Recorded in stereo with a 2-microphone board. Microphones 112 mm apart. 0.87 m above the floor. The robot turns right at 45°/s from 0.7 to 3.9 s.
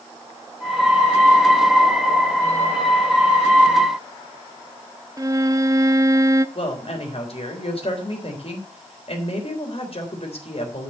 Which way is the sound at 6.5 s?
55° left (ahead or behind).